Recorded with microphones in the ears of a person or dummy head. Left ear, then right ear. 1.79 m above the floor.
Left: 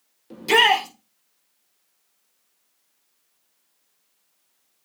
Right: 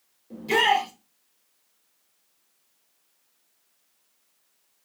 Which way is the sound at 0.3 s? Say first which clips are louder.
Left 4 dB; 55° left (ahead or behind).